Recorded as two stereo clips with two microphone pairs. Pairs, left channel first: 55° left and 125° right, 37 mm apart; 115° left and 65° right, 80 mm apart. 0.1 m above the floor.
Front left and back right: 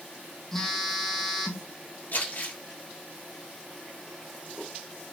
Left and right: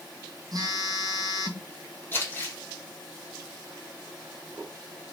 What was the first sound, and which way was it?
A phone buzzing, 25° right.